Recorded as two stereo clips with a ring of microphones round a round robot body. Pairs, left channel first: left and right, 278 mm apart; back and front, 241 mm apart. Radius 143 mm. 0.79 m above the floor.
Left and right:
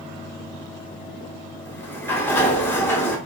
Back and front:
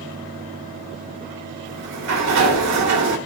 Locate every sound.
1.6 s a sliding door: 10° left, 1.6 m